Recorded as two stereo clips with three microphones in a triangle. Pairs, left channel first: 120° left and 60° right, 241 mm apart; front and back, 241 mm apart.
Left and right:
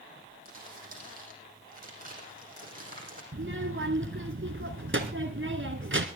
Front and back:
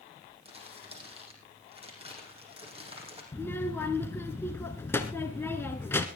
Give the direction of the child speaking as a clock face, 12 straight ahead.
3 o'clock.